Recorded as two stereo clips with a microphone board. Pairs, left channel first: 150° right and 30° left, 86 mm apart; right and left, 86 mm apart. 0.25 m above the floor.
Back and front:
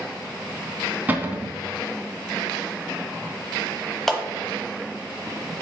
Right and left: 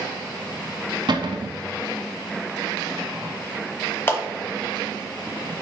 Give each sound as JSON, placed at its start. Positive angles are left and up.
{"t": 1.1, "sound": "a cupboard door", "azimuth_deg": 95, "distance_m": 0.8}
{"t": 4.1, "sound": "a clap", "azimuth_deg": -70, "distance_m": 1.0}